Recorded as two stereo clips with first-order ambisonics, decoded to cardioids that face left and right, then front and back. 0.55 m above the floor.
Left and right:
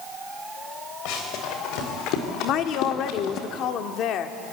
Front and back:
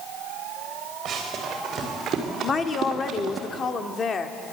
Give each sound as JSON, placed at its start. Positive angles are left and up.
{"t": 1.1, "sound": "running footsteps", "azimuth_deg": 115, "distance_m": 5.0}
{"t": 2.4, "sound": "a woman speaking", "azimuth_deg": 65, "distance_m": 1.0}